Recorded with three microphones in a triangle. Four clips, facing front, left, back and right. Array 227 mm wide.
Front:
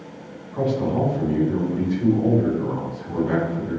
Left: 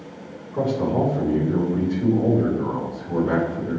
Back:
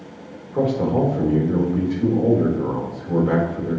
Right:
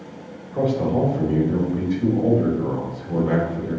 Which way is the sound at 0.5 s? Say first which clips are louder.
Right 1 dB, back 3 dB; 175° right.